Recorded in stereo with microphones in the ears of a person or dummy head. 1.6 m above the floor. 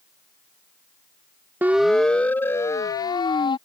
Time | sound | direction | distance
1.6 | a siren | 10° right (ahead or behind) | ?